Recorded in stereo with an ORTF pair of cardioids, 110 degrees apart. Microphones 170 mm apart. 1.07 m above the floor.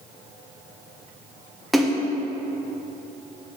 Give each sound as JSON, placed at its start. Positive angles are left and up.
{"t": 1.7, "sound": "a splash", "azimuth_deg": 0, "distance_m": 0.7}